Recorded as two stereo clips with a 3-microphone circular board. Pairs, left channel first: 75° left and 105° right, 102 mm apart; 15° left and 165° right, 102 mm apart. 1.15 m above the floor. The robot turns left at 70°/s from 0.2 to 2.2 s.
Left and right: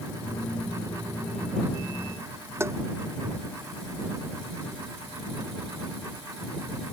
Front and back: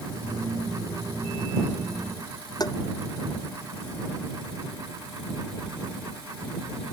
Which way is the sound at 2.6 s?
40° right.